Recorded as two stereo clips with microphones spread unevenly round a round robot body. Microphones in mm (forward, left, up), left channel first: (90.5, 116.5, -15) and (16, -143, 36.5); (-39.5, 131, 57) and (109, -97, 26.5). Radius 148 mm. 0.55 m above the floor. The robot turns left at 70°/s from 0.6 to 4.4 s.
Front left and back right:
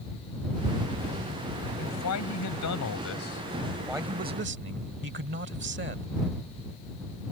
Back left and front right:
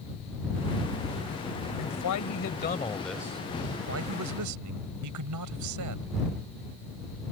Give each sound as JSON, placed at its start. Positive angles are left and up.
{"t": 1.8, "sound": "a man speaking", "azimuth_deg": 125}